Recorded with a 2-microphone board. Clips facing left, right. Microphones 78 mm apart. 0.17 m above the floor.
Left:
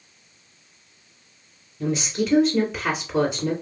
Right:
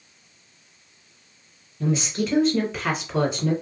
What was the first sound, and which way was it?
A woman speaking, centre (ahead or behind).